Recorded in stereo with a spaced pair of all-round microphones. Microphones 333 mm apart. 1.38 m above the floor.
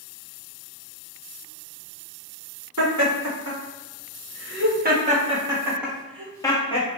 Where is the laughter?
65° right (ahead or behind), 2.5 m; by 7.0 s 20° left (ahead or behind), 2 m.